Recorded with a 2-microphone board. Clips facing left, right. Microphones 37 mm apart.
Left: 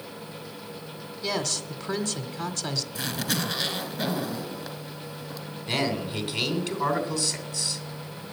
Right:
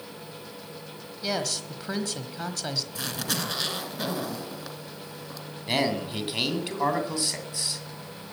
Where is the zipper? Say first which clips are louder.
Left 2 dB; centre (ahead or behind), 1.8 m.